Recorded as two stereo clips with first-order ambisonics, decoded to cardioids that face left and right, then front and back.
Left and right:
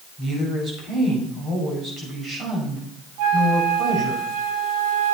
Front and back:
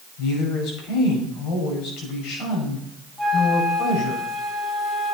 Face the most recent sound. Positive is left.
turn(degrees=-90)